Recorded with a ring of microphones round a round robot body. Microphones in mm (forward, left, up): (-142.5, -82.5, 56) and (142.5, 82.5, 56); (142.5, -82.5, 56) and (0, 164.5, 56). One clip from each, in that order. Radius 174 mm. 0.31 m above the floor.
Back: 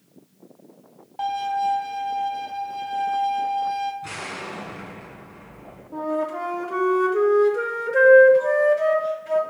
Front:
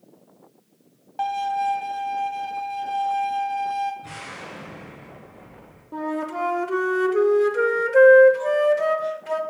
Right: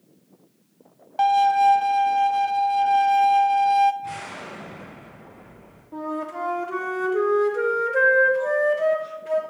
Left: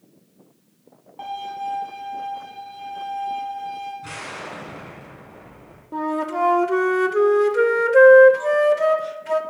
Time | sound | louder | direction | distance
1.2 | a violin | even, right 13 dB | 45° right | 0.5 m
4.0 | an explosion | back 4 dB, left 1 dB | 145° left | 2 m
5.9 | a flute | back 2 dB, left 6 dB | 85° left | 0.6 m